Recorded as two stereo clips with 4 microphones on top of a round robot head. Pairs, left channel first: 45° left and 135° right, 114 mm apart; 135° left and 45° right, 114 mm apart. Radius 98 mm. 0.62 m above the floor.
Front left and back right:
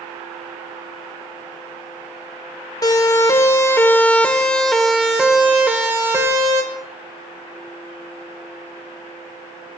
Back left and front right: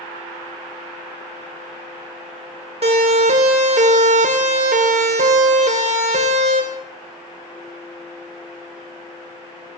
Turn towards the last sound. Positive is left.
turn(degrees=-70)